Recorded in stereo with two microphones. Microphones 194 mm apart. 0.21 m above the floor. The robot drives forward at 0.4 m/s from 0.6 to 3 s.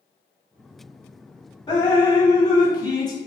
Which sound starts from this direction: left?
Dripping, at 1.7 s.